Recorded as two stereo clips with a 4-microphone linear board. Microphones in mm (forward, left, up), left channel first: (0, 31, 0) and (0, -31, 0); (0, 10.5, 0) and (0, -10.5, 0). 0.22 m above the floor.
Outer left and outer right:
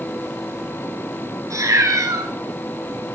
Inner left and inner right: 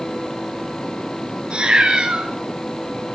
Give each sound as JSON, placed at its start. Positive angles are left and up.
{"t": 1.5, "sound": "a cat meowing", "side_deg": -60, "distance_m": 1.1}